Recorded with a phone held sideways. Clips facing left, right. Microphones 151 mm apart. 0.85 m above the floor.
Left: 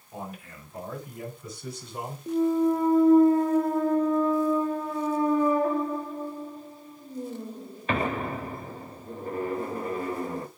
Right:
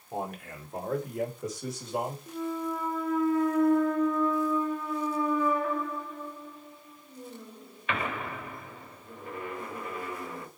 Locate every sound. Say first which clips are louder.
0.1 s a man speaking: right 4 dB; 60° right (ahead or behind), 2.5 m; by 2.2 s 80° right, 3.5 m
2.3 s a clunk: left 10 dB; 35° left (ahead or behind), 0.7 m